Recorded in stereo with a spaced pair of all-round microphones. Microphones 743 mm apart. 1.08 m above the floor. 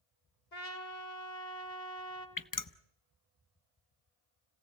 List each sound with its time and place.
0.5 s a trumpet: 65° left (ahead or behind), 2.5 m
2.4 s dripping: 30° left (ahead or behind), 0.6 m